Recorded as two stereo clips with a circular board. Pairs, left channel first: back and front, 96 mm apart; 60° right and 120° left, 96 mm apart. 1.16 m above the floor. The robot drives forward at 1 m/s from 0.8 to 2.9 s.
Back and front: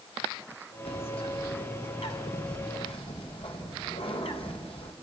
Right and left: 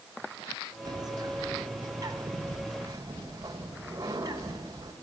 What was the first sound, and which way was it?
A bird, 165° left.